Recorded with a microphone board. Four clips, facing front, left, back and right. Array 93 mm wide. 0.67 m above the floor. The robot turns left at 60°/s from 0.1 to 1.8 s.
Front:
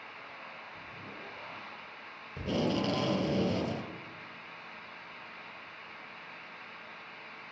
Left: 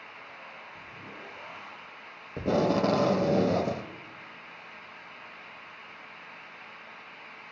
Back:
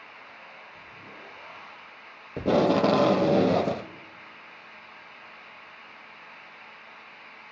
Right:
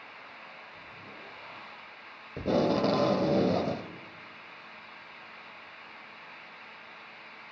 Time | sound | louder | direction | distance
2.4 | tape being pulled | left 1 dB, back 10 dB | 170° left | 0.7 m